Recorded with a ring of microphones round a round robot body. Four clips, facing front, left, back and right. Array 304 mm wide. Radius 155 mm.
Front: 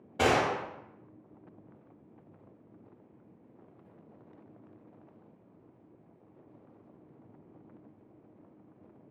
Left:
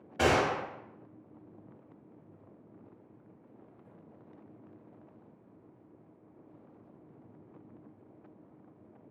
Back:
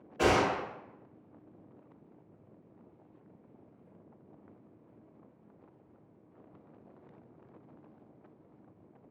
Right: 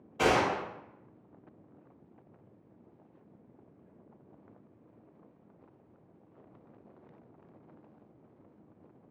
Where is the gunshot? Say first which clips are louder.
Even, even; 20° left, 0.8 m.